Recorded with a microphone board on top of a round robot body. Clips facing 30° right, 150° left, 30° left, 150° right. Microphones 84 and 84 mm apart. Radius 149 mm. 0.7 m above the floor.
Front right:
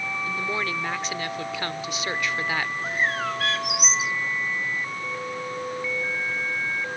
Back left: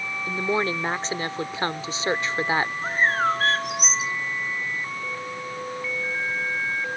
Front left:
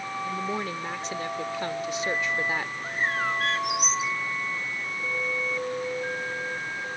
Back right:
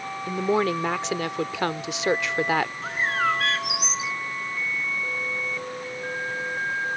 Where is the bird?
155° right.